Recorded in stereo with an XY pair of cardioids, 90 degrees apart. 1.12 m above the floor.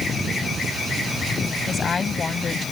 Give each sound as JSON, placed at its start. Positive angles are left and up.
{"t": 1.7, "sound": "a woman speaking", "azimuth_deg": 45}